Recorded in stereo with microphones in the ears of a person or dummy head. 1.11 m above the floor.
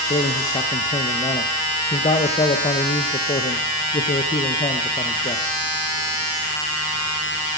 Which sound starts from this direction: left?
A man speaking, at 0.1 s.